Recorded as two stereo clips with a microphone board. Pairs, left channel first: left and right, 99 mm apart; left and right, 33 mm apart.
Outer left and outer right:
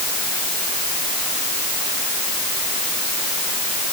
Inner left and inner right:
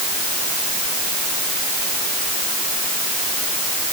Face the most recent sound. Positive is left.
No sound to turn to.